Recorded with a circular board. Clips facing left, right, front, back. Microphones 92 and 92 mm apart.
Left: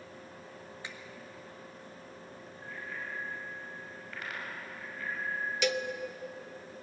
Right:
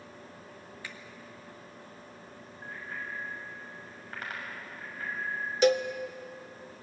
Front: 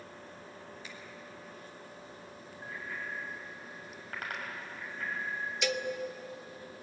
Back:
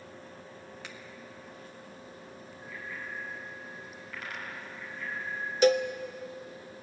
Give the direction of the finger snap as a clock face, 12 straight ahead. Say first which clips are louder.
Even, back 2 dB; 7 o'clock.